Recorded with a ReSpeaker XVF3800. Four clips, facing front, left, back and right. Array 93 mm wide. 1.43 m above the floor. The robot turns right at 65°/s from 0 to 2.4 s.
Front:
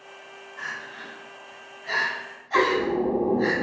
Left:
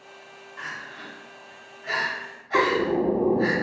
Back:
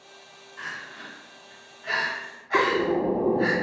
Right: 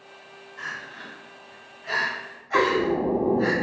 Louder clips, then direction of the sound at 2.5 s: Even, front 1 dB; 165° left.